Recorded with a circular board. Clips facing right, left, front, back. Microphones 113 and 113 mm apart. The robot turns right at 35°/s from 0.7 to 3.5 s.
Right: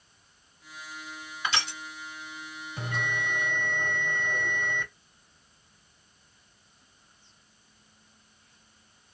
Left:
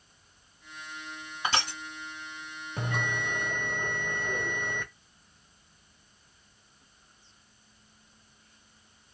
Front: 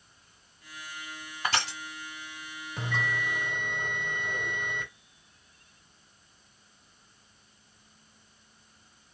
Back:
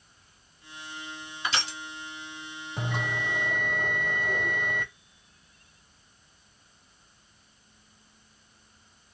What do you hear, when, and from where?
1.4 s crushing: 35° left, 1.7 m; by 1.8 s 50° left, 1.7 m
2.8 s a bell: 100° left, 1.6 m; by 4.9 s 130° left, 1.6 m